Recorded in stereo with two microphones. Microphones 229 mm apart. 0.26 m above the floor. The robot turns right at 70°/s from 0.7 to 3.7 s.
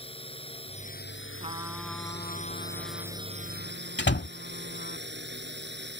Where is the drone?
25° left; by 6.0 s 125° right.